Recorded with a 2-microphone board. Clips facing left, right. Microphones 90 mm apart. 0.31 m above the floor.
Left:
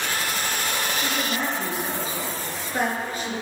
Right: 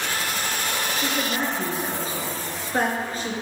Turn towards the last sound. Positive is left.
turn(degrees=-35)  # may be behind; listen again after turning